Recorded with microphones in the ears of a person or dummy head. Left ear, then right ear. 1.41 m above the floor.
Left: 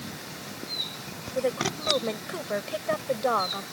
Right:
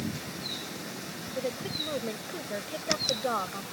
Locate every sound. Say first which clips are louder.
1.4 s a woman speaking: left 6 dB; 45° left (ahead or behind); by 3.6 s 20° left (ahead or behind)